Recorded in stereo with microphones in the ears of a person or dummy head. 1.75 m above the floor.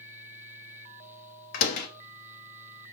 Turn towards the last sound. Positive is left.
turn(degrees=50)  # may be behind; listen again after turning